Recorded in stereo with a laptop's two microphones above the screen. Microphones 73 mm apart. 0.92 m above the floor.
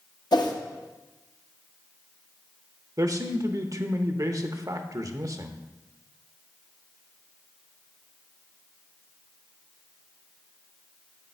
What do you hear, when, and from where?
0.3 s a whoosh: 70° left (ahead or behind), 0.7 m
3.0 s a man speaking: 50° right (ahead or behind), 0.7 m